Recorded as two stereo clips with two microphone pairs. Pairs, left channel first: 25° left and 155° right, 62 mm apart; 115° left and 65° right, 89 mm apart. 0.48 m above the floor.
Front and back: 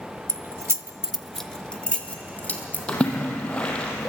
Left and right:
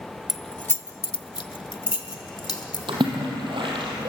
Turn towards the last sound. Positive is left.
turn(degrees=-45)